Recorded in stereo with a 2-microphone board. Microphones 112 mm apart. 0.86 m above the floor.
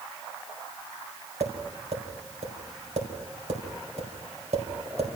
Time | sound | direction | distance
1.4 | tapping | 75° right (ahead or behind) | 4.5 m